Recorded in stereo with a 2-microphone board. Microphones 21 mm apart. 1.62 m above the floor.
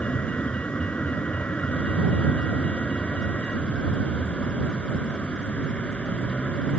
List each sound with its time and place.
0.0 s a vehicle: 70° left (ahead or behind)